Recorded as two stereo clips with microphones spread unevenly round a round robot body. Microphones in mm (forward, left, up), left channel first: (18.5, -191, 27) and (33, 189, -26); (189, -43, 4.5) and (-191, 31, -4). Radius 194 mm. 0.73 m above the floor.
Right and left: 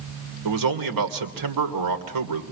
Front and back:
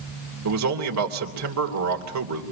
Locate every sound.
0.5 s a man speaking: 120° left, 3 m